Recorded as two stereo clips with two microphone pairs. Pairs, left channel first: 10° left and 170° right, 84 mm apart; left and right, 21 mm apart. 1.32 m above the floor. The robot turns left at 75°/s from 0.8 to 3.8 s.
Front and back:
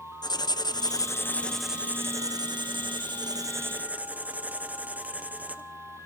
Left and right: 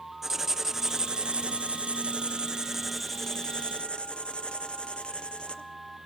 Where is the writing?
20° right, 0.8 m; by 5.6 s 115° left, 0.8 m.